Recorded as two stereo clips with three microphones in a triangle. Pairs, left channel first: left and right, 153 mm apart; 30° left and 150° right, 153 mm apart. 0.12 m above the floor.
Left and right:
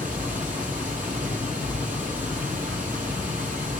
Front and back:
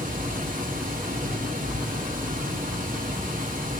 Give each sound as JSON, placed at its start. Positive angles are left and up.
{"t": 0.0, "sound": "running water", "azimuth_deg": -120, "distance_m": 7.0}